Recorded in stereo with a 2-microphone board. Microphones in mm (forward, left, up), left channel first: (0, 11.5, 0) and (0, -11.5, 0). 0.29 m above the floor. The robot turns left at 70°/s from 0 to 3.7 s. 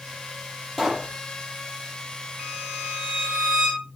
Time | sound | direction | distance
0.8 | a pop | 10° left (ahead or behind) | 7.5 m
2.4 | a violin | 55° right | 3 m